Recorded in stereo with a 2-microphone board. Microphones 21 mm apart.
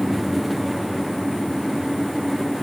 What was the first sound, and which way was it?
Only background noise.